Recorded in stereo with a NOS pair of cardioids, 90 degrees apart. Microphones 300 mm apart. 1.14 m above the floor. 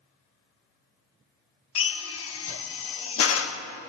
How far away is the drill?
About 1.1 m.